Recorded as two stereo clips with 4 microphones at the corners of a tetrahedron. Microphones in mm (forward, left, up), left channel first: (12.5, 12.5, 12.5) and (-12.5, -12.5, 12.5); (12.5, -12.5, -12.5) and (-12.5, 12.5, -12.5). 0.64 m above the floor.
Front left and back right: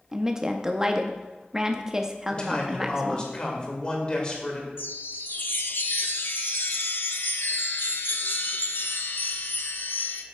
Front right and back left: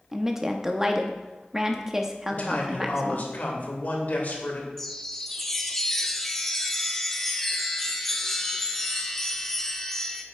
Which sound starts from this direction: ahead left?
A chime, at 4.8 s.